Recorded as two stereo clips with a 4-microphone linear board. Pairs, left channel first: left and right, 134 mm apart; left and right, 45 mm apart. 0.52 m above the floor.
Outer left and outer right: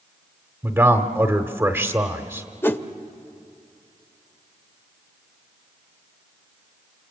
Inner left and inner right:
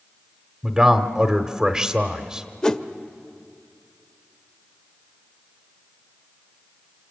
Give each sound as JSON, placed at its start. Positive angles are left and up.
{"t": 0.6, "sound": "a man speaking", "side_deg": -15, "distance_m": 1.0}
{"t": 2.6, "sound": "a whoosh", "side_deg": 15, "distance_m": 0.7}